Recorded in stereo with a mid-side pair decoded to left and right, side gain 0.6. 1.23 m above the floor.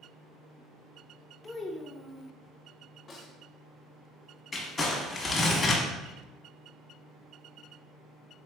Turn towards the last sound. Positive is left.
turn(degrees=30)